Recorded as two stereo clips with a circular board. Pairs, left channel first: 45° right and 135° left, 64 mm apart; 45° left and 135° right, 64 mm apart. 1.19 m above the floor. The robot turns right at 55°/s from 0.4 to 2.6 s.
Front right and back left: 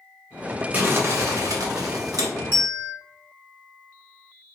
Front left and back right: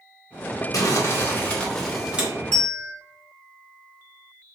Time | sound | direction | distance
0.7 | crumpling | 70° left | 0.7 m
2.5 | a bell | 110° left | 1.2 m